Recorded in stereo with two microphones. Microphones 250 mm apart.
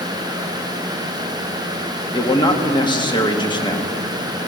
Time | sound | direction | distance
2.1 | a man speaking | 15° left (ahead or behind) | 1.3 m